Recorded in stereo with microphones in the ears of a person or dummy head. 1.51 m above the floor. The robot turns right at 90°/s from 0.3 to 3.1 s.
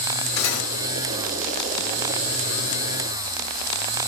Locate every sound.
0.4 s cutlery clinking: 80° left, 3 m; by 0.7 s 55° left (ahead or behind), 3 m